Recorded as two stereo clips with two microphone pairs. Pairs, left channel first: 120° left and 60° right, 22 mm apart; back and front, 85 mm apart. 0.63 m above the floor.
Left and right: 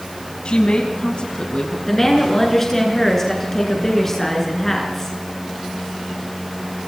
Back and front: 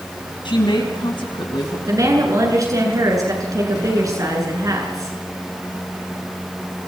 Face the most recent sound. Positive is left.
turn(degrees=45)